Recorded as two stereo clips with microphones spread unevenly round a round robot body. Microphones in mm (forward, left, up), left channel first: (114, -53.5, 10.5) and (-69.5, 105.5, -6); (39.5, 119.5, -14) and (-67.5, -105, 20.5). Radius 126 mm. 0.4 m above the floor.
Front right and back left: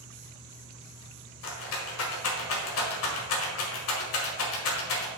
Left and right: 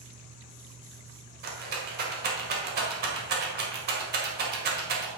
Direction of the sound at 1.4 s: 65° right.